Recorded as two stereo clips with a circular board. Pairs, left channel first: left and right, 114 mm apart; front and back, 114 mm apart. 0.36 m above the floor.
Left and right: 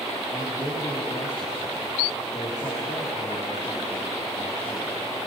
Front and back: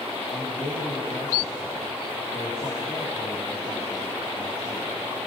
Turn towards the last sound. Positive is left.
turn(degrees=35)